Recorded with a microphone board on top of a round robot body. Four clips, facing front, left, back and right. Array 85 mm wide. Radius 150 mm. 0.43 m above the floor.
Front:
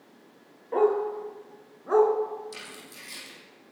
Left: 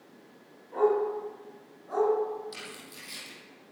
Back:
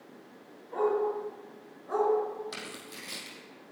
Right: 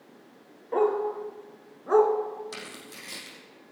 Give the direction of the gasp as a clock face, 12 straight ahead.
I don't hear a gasp.